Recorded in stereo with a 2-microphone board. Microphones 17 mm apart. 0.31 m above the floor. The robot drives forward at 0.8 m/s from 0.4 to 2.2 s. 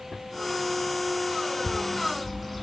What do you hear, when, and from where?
1.6 s a bird: 5° left (ahead or behind), 1.7 m; by 2.6 s centre (ahead or behind), 2 m